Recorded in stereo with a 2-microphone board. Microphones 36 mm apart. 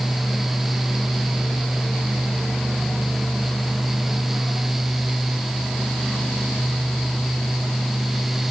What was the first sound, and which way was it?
Only background noise.